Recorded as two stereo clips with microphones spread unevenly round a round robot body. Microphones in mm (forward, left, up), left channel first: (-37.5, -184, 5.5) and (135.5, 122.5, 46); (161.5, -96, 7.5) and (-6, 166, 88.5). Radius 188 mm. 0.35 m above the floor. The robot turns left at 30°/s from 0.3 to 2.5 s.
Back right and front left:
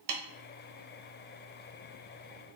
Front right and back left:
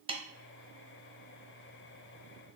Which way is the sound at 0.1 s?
45° left.